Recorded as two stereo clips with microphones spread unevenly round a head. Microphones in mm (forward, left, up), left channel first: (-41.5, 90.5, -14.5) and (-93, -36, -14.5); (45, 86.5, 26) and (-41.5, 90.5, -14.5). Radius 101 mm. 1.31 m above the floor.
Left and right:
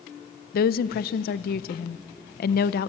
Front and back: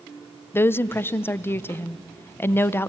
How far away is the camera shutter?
I don't hear a camera shutter.